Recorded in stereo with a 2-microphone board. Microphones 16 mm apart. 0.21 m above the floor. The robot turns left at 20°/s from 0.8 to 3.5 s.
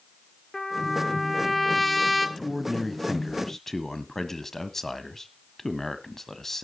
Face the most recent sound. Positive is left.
turn(degrees=25)  # may be behind; listen again after turning